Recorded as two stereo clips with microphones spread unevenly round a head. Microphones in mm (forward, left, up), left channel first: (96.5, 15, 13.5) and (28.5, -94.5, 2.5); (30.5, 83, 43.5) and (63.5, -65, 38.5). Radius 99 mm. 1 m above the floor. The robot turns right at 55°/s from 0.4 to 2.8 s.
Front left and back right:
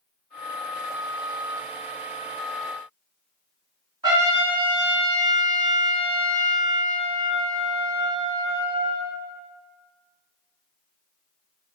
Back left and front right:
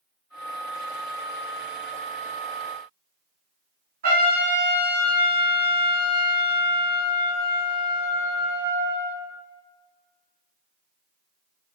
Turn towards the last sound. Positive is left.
turn(degrees=-70)